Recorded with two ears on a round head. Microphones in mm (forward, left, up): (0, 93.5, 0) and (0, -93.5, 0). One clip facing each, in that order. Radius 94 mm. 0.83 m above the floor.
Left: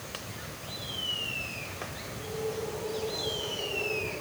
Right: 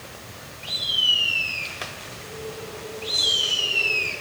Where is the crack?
No crack in this recording.